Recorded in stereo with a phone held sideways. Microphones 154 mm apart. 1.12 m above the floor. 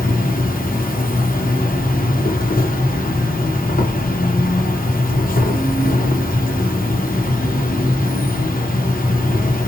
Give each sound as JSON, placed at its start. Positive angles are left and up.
{"t": 0.0, "sound": "an insect", "side_deg": 85, "distance_m": 0.7}